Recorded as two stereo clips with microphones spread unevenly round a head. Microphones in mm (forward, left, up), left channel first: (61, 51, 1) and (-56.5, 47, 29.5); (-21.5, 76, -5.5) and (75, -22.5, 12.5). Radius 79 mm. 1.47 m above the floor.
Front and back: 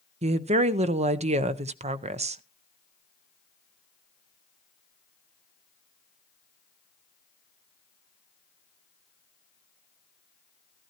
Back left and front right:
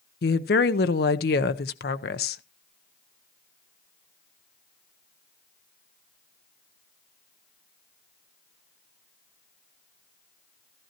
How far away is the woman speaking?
About 0.8 m.